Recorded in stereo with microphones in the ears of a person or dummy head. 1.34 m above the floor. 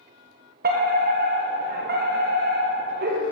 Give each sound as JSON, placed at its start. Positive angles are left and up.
{"t": 0.6, "sound": "a fire alarm", "side_deg": -45, "distance_m": 1.7}